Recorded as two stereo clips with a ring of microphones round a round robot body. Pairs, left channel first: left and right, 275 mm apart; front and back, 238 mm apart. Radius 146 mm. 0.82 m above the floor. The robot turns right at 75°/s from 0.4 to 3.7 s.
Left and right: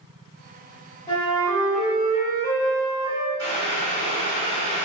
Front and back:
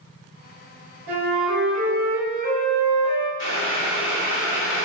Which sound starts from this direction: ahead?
Boiling, at 3.4 s.